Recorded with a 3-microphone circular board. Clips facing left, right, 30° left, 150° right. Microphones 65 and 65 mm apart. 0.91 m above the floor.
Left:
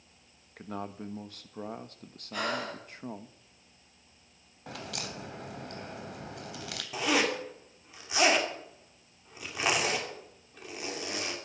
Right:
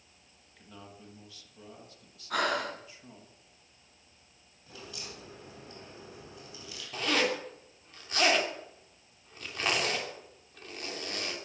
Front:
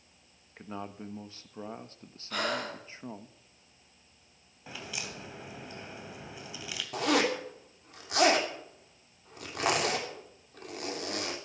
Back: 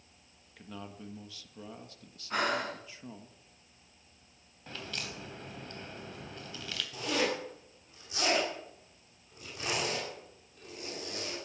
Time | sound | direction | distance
0.6 | a man speaking | 75° left | 1.3 m
2.3 | breathing | 85° right | 8 m
4.7 | a crack | 110° left | 2.5 m
6.9 | a zipper | 10° left | 3 m